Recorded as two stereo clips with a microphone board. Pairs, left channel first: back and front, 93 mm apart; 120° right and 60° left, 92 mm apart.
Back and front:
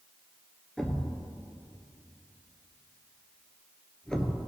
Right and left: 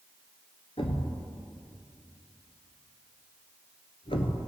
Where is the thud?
100° right, 1.1 m.